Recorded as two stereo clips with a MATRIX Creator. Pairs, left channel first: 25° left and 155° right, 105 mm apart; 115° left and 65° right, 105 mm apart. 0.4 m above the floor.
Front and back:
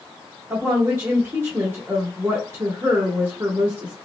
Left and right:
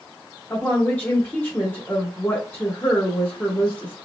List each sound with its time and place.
0.5 s a woman speaking: 165° left, 1.0 m